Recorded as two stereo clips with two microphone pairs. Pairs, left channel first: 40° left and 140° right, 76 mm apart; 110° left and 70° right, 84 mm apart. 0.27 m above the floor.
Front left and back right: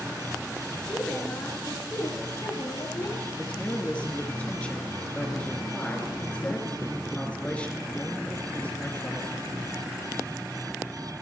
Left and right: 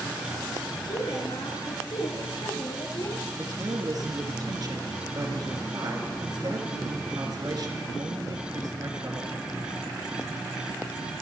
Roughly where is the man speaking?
Ahead right.